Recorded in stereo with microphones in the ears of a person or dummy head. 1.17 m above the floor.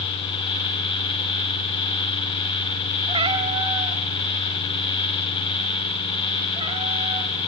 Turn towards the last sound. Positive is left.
turn(degrees=-35)  # may be behind; listen again after turning